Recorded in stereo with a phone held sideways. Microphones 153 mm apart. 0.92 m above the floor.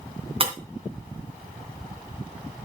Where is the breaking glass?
35° right (ahead or behind), 2.5 m.